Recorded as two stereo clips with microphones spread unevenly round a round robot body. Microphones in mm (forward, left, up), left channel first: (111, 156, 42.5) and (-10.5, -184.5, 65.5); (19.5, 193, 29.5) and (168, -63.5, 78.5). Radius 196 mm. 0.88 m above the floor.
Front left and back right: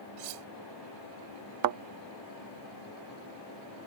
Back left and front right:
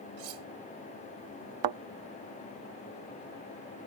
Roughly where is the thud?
Ahead right.